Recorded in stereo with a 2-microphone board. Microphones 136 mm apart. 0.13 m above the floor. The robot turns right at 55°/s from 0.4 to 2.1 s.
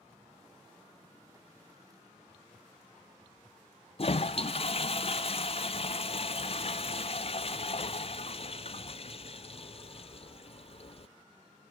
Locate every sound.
4.0 s a toilet flushing: 45° left (ahead or behind), 0.5 m